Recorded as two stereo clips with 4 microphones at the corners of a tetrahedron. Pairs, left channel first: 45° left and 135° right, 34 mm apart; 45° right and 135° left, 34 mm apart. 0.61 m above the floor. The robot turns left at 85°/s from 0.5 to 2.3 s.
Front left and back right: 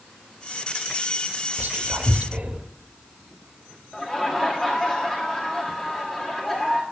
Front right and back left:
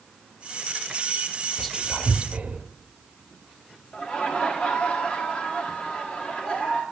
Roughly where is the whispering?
Behind right.